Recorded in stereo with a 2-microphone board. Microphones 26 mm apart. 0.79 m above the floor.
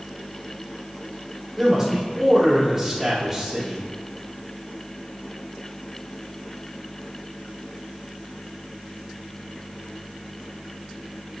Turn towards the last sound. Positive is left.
turn(degrees=-10)  # may be behind; listen again after turning